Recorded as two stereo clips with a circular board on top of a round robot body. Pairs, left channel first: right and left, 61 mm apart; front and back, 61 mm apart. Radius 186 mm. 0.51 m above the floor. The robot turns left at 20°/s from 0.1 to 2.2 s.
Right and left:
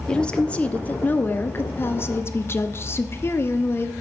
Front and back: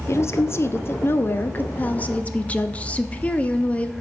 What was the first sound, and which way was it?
A woman speaking, 20° right.